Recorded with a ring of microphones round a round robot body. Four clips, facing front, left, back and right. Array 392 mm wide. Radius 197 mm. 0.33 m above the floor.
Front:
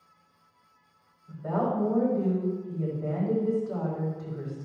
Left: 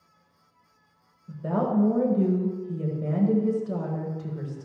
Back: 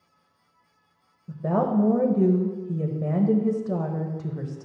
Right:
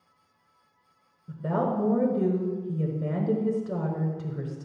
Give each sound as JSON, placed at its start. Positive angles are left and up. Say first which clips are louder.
{"t": 1.3, "sound": "a woman speaking", "louder": "left 1 dB, back 4 dB", "azimuth_deg": -165, "distance_m": 1.3}